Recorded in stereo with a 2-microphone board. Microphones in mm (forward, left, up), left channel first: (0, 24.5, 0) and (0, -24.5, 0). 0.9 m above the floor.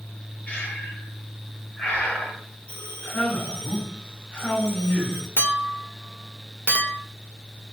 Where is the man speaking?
25° left (ahead or behind), 1.6 m.